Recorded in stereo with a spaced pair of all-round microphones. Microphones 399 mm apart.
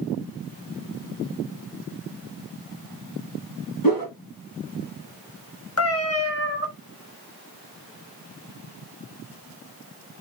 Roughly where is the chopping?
No chopping in this recording.